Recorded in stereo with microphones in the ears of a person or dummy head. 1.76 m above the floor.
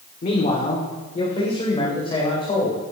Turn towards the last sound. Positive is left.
turn(degrees=25)  # may be behind; listen again after turning